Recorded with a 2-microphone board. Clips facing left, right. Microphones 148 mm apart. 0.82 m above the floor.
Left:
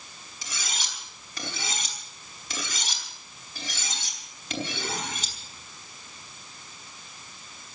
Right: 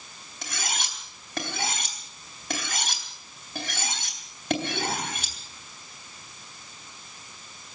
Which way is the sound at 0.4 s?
60° right (ahead or behind).